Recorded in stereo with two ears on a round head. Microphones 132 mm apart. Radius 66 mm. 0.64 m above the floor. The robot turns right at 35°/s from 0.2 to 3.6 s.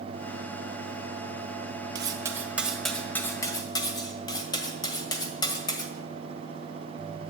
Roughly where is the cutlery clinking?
Right.